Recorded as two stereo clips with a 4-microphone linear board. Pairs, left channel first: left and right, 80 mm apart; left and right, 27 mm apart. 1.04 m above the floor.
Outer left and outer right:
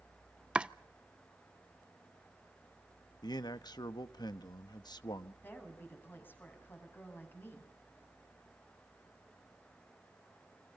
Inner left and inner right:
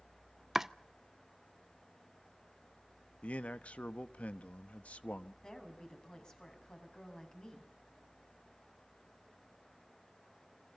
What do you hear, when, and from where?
0.6 s chopping: 15° right (ahead or behind), 0.6 m
3.2 s a man speaking: 65° left (ahead or behind), 1.1 m
5.4 s a woman speaking: 30° left (ahead or behind), 6.5 m